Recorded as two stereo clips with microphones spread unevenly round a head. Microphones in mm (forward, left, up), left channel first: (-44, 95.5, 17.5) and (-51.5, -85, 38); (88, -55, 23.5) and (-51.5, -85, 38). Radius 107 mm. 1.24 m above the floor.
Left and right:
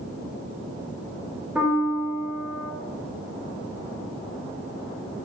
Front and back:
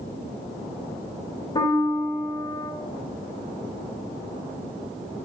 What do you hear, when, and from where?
1.6 s a piano: 5° right, 0.5 m